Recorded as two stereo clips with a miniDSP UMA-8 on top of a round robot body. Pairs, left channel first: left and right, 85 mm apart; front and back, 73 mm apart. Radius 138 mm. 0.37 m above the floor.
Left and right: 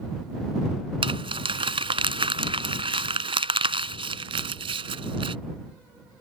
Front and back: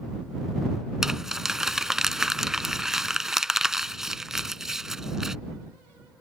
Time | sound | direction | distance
1.0 | crumpling | 95° right | ?